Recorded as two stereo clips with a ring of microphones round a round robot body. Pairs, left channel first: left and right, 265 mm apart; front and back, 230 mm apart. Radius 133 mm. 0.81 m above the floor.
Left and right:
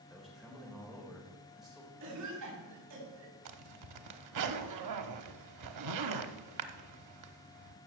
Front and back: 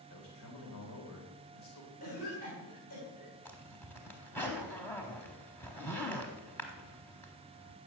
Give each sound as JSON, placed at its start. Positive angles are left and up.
{"t": 0.1, "sound": "a man speaking", "azimuth_deg": 0, "distance_m": 3.5}
{"t": 2.0, "sound": "a cough", "azimuth_deg": -60, "distance_m": 7.0}
{"t": 3.5, "sound": "a zipper", "azimuth_deg": -85, "distance_m": 1.0}